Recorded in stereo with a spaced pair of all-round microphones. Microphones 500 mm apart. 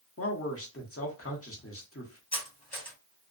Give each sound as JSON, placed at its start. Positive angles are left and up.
{"t": 0.2, "sound": "a man speaking", "side_deg": 30, "distance_m": 0.9}
{"t": 2.3, "sound": "cutlery clinking", "side_deg": 50, "distance_m": 1.5}